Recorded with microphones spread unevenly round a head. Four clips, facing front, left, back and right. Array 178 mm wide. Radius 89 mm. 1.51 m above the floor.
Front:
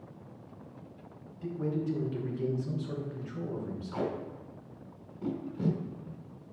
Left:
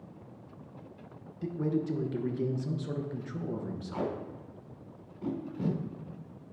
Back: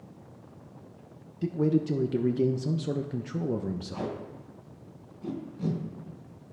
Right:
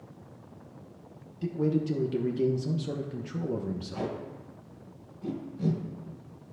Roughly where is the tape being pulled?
Ahead left.